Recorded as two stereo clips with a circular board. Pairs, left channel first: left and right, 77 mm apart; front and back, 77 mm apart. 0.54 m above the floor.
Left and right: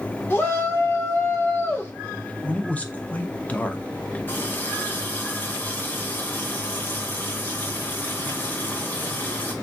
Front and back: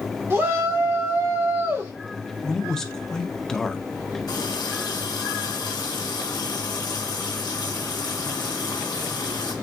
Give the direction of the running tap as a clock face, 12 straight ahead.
11 o'clock.